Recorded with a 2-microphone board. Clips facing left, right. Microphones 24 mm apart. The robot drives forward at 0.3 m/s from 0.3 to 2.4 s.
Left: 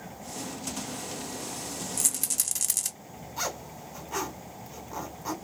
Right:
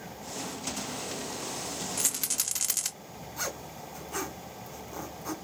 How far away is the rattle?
About 0.7 m.